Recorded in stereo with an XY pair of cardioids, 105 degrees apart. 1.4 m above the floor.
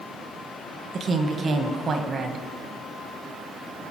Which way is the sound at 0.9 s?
50° right.